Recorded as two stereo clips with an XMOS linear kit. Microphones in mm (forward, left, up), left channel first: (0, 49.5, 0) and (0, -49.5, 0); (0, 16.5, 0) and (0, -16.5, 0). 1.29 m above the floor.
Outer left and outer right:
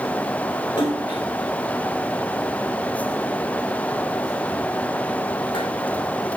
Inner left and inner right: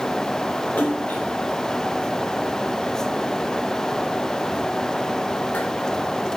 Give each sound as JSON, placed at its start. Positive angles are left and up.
{"t": 0.8, "sound": "a splash", "side_deg": 50, "distance_m": 4.5}